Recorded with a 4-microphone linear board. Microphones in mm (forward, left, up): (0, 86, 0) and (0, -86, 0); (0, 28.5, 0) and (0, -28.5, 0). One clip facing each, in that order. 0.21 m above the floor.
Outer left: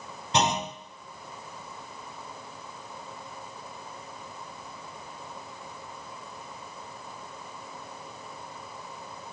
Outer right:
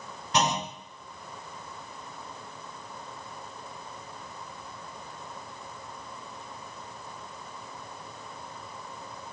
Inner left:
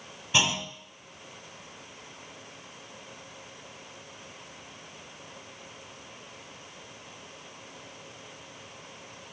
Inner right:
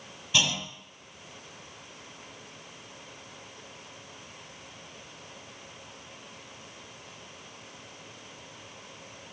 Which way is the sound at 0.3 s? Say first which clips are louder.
Outer left 1 dB, inner left 2 dB; 25° left (ahead or behind).